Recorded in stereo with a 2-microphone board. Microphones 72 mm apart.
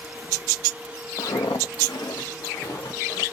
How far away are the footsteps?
About 0.6 m.